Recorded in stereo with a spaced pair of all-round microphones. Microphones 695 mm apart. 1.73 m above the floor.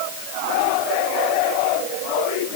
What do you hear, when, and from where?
Only background noise.